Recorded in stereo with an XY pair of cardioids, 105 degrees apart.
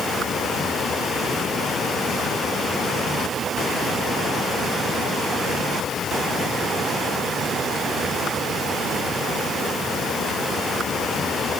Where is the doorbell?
No doorbell in this recording.